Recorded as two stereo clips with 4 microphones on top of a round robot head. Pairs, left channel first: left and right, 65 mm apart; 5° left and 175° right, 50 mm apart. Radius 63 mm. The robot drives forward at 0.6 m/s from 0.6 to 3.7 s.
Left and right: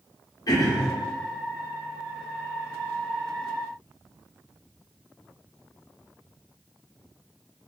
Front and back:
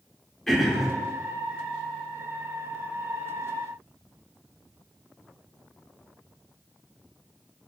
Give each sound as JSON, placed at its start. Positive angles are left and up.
{"t": 0.5, "sound": "throat clearing", "azimuth_deg": 90, "distance_m": 1.3}